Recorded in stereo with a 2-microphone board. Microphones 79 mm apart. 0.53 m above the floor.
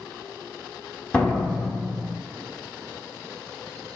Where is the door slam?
10° left (ahead or behind), 1.1 m.